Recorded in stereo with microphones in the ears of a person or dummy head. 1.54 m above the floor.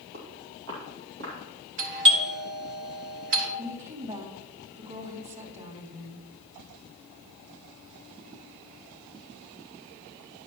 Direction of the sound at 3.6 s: 40° right (ahead or behind).